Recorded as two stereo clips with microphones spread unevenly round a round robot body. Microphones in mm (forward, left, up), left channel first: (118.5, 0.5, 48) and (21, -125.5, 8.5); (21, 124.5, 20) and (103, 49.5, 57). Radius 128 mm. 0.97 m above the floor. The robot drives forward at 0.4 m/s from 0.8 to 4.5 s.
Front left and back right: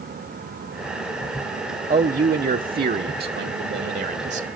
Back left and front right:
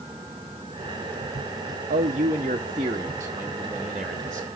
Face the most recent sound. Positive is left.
turn(degrees=-145)